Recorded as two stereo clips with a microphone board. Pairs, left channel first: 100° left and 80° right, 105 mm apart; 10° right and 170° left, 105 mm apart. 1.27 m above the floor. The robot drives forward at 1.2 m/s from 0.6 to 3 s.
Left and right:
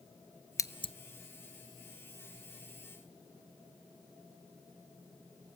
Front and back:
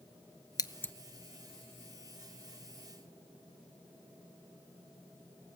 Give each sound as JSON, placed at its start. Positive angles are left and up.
{"t": 0.6, "sound": "scissors", "azimuth_deg": 40, "distance_m": 0.7}